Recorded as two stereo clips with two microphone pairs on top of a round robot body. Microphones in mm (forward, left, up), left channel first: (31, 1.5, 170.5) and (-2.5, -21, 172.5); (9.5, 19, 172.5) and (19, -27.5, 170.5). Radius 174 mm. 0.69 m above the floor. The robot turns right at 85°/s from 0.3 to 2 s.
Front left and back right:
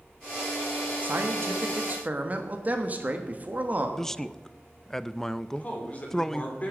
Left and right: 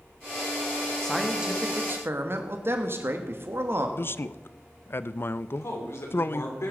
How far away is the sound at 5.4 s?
About 3.5 m.